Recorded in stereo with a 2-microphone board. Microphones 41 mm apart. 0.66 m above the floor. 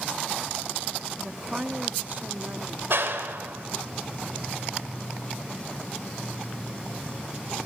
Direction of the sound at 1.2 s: 10° right (ahead or behind).